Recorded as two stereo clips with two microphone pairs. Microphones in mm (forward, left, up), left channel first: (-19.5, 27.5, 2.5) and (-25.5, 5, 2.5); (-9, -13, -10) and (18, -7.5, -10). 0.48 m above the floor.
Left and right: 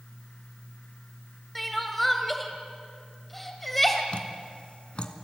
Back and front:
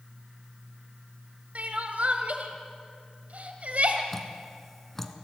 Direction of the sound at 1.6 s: 10° right.